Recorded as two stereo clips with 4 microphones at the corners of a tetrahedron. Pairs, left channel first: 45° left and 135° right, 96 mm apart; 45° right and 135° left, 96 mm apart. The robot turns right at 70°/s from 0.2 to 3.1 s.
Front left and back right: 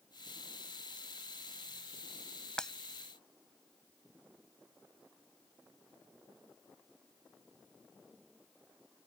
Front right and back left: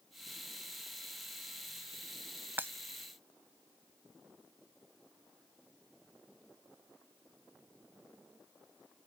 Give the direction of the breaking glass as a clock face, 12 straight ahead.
8 o'clock.